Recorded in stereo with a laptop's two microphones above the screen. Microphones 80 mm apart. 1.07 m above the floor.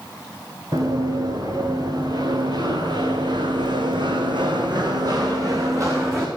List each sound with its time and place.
0.7 s running footsteps: 45° right (ahead or behind), 6 m; by 6.3 s 35° right (ahead or behind), 3.5 m